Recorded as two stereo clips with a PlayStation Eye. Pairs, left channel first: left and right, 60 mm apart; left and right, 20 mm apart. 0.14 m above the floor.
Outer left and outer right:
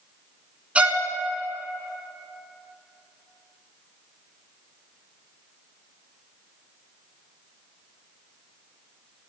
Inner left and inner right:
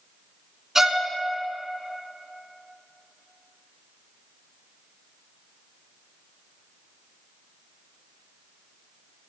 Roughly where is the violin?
Right.